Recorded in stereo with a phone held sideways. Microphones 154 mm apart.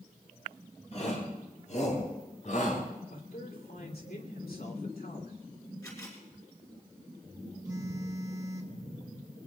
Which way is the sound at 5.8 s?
20° left (ahead or behind).